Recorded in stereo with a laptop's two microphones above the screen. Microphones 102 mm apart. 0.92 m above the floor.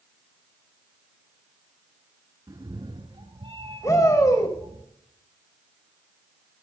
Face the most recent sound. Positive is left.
turn(degrees=35)  # may be behind; listen again after turning